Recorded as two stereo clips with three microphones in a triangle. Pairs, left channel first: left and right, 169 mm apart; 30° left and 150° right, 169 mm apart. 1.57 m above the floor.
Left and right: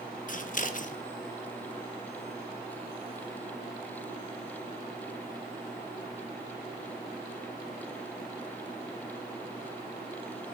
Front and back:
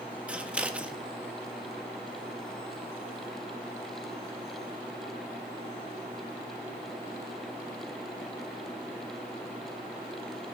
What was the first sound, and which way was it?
Scissors, 130° left.